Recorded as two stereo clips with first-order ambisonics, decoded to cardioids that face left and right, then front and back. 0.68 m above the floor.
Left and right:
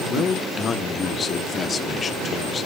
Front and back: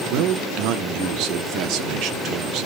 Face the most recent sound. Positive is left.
turn(degrees=155)